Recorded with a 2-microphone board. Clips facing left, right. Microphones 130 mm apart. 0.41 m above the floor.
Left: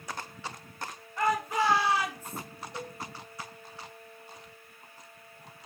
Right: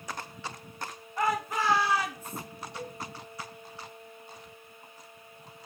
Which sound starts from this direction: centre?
A shout, at 1.2 s.